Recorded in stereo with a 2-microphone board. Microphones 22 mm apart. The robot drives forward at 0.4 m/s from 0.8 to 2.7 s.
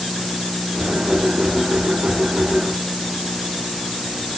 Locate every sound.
Only background noise.